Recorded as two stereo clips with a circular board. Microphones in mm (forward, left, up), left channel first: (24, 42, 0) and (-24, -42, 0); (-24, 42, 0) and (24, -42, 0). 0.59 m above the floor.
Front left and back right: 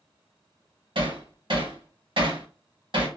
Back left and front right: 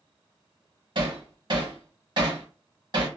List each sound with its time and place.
0.9 s hammering: 95° right, 1.1 m